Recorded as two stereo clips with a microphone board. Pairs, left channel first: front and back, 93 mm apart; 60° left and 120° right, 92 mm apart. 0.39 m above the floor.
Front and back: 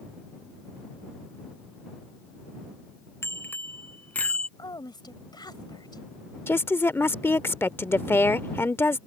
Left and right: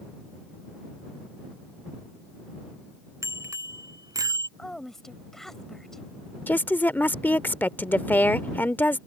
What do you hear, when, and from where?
3.2 s a bicycle bell: 65° right; by 4.5 s 75° right
4.6 s a woman speaking: 25° right
6.5 s a woman speaking: 20° left